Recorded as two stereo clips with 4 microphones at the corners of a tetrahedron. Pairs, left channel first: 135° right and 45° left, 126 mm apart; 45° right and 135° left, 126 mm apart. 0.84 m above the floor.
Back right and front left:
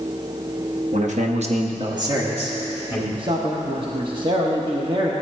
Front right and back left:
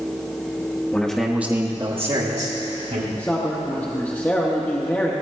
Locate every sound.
0.9 s a man speaking: 30° left, 1.3 m; by 3.0 s 135° left, 1.9 m
3.1 s a man speaking: 25° left, 1.1 m